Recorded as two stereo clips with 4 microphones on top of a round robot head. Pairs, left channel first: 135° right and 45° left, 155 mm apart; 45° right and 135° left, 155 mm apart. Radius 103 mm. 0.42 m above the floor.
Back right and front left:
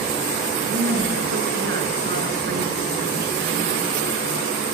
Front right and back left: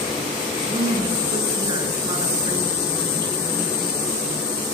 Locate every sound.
0.6 s a woman speaking: 70° left, 6 m